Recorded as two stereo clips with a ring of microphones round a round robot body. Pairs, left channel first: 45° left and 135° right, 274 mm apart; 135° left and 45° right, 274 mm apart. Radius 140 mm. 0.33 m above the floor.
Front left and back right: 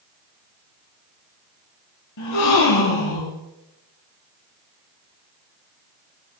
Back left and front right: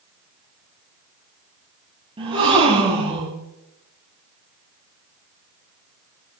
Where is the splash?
I don't hear a splash.